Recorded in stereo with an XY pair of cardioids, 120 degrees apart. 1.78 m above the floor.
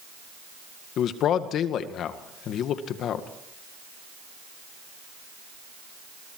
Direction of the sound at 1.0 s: 65° left.